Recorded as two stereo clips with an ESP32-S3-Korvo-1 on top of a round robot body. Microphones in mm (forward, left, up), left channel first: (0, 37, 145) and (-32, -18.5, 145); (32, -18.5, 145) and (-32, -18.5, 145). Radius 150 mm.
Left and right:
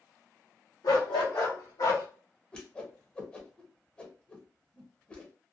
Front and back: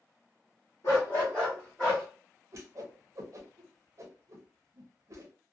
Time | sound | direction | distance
0.8 | a dog barking | 45° left | 0.7 m
2.5 | a whoosh | 130° left | 0.5 m